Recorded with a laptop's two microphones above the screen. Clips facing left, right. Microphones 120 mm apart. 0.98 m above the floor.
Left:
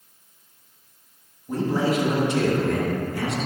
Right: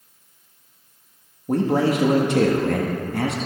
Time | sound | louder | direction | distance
1.5 | a man speaking | right 4 dB | 60° right (ahead or behind) | 1.4 m